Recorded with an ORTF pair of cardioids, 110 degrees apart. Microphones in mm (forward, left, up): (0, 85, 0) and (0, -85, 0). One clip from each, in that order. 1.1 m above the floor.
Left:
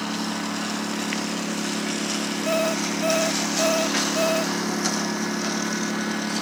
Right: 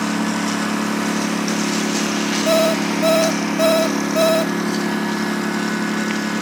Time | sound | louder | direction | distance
0.0 | a lawn mower | right 7 dB | 50° right | ?
2.5 | an alarm clock | right 7 dB | 50° right | ?